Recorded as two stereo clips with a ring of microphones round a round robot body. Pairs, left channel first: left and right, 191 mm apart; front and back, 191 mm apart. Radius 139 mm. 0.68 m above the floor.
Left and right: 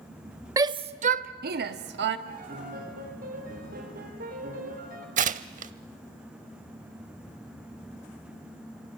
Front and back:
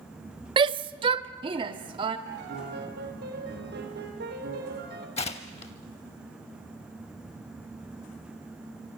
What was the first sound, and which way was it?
A shout, 145° right.